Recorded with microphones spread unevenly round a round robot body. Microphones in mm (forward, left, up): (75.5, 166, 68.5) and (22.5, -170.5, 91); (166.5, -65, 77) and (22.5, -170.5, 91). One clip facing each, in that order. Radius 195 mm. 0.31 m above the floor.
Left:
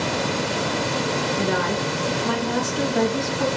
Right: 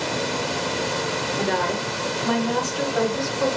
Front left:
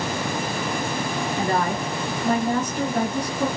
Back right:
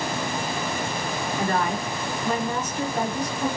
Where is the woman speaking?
5° left, 0.9 m; by 3.5 s 45° left, 2.5 m.